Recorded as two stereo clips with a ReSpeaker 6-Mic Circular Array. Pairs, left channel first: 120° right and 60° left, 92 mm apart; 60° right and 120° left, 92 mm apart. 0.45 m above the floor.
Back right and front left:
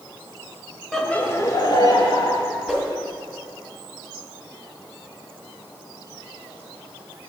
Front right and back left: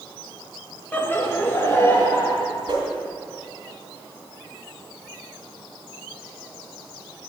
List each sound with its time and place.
0.9 s laughter: 40° right, 0.7 m; by 2.4 s 120° right, 1.4 m
2.7 s a whoosh: 155° left, 1.8 m